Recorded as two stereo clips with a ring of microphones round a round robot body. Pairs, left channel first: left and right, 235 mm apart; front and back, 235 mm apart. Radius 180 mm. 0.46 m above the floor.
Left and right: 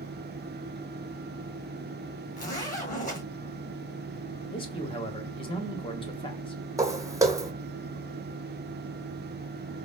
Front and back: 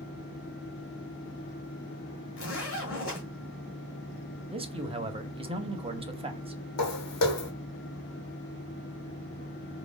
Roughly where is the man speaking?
Behind left.